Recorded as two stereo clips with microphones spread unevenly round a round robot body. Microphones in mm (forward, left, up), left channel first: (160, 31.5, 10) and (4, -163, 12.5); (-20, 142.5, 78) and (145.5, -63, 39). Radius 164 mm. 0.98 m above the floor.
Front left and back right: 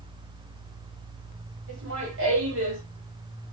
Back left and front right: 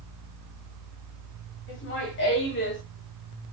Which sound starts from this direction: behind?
Laughter, at 1.7 s.